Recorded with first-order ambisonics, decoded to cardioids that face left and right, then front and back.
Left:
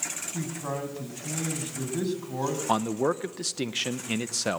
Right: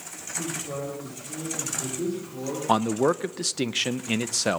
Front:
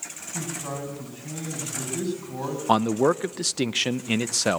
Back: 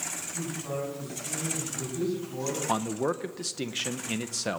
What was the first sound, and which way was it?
A man speaking, 65° left.